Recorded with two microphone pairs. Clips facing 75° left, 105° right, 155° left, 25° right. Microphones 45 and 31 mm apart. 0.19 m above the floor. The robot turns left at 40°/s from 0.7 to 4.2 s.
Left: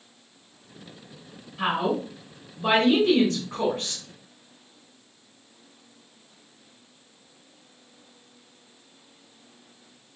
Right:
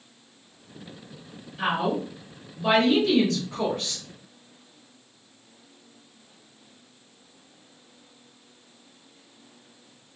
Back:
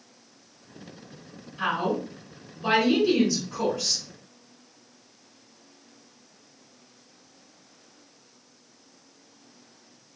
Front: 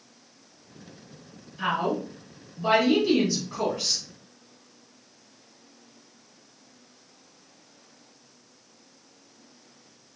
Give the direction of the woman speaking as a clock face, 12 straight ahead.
8 o'clock.